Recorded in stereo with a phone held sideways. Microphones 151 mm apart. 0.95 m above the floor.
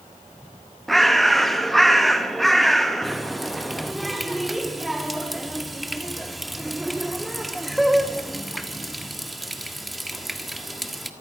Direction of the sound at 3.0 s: Centre (ahead or behind).